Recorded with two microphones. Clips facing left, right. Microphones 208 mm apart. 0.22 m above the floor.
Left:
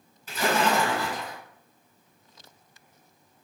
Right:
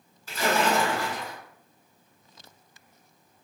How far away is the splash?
About 1.8 m.